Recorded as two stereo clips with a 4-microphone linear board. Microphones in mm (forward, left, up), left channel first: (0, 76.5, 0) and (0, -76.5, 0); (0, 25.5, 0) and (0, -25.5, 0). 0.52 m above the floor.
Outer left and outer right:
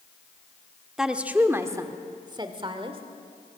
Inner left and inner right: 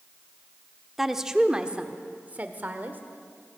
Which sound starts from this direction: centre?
A woman speaking, at 1.0 s.